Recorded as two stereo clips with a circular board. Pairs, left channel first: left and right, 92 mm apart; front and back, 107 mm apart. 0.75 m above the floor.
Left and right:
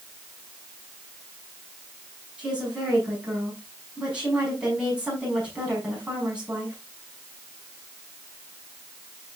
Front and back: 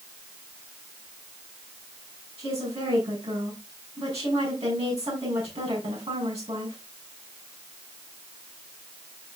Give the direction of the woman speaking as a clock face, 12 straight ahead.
6 o'clock.